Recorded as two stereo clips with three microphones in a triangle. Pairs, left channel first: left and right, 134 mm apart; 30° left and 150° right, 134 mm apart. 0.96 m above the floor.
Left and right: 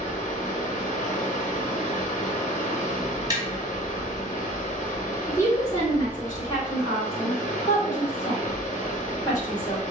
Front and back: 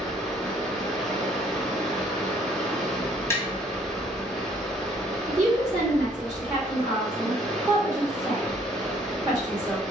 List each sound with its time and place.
0.0 s running water: 120° left, 1.1 m
3.3 s tapping: 40° right, 1.3 m
5.3 s a woman speaking: 150° left, 2 m